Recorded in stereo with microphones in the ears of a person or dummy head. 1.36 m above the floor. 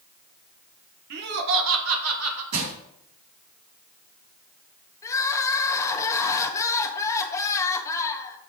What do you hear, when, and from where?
1.1 s laughter: 55° right (ahead or behind), 1.3 m; by 2.4 s 80° right, 2.5 m
2.5 s crushing: 85° right, 3.5 m
5.0 s crying: 25° left (ahead or behind), 1.4 m